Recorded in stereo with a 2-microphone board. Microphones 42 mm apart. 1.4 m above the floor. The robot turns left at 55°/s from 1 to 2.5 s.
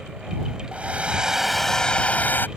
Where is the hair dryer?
150° right; by 2.5 s 130° left.